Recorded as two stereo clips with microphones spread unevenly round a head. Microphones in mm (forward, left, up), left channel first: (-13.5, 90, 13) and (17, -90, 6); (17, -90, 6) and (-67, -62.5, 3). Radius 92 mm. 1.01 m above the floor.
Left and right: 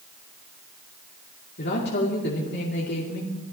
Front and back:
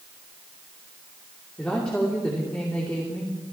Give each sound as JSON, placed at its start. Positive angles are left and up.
{"t": 1.6, "sound": "a woman speaking", "azimuth_deg": 65, "distance_m": 2.5}